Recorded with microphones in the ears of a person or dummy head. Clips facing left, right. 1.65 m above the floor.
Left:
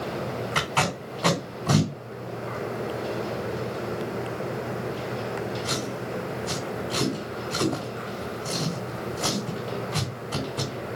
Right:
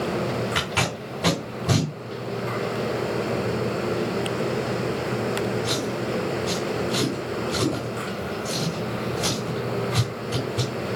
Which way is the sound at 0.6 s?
15° right (ahead or behind).